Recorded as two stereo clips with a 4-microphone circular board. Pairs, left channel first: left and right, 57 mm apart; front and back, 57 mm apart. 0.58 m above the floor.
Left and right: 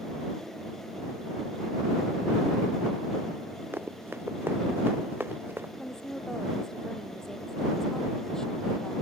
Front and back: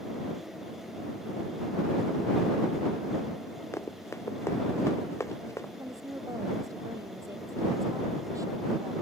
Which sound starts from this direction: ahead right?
Running footsteps, at 3.7 s.